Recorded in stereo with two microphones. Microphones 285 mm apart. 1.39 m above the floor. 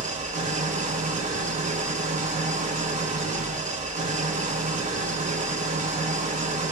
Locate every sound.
0.0 s an engine running: 25° right (ahead or behind), 0.8 m